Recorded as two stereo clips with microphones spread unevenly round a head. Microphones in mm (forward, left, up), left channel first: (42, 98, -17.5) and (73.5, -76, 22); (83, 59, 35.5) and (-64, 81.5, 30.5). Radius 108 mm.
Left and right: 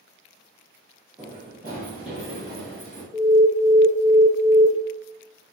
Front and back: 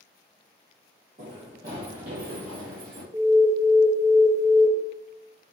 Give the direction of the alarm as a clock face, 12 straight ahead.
5 o'clock.